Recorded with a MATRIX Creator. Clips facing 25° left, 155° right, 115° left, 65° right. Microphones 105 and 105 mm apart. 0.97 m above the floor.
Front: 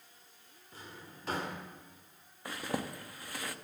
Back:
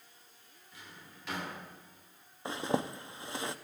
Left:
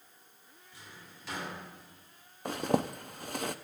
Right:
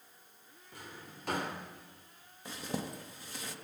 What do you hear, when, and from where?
0.7 s a drawer: 30° right, 1.9 m
2.5 s a zipper: 140° left, 0.5 m